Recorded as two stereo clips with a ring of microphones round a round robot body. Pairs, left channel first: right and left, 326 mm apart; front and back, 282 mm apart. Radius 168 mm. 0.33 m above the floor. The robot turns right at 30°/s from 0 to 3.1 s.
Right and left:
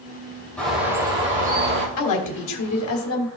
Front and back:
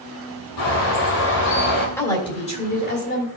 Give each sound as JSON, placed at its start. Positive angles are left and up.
{"t": 0.6, "sound": "a bird", "azimuth_deg": -5, "distance_m": 3.0}
{"t": 2.0, "sound": "a woman speaking", "azimuth_deg": -80, "distance_m": 2.5}